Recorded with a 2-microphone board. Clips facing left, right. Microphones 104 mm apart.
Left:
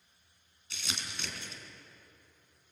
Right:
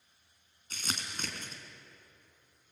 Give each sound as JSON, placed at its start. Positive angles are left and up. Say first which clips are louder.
{"t": 0.7, "sound": "crumpling", "louder": "right 2 dB", "side_deg": -45, "distance_m": 2.5}